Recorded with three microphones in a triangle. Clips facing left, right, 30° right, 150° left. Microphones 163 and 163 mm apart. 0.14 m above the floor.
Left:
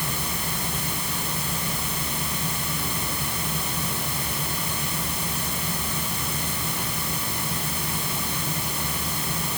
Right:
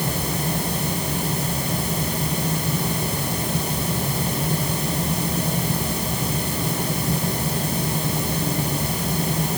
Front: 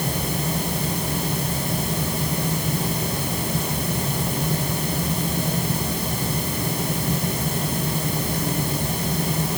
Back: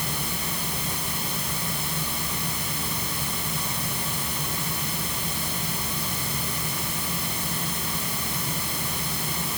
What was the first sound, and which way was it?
Only background noise.